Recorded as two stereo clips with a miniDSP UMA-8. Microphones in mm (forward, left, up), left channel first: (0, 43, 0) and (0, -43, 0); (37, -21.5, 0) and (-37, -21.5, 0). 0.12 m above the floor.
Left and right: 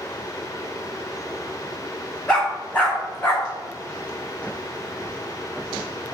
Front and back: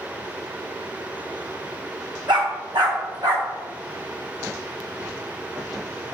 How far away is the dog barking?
About 1.9 m.